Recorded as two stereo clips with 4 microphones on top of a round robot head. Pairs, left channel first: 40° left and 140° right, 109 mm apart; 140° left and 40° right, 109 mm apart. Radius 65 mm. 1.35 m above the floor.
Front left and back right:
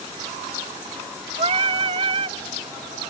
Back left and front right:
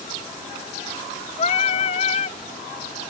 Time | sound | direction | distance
1.4 | singing | 175° left | ?